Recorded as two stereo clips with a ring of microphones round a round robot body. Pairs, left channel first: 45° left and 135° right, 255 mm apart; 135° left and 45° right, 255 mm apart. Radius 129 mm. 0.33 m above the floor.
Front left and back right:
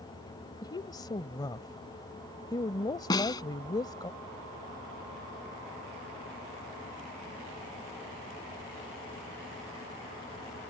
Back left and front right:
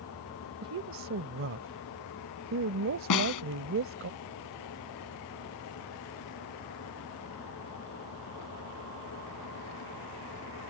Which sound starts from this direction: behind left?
A snare drum, at 3.1 s.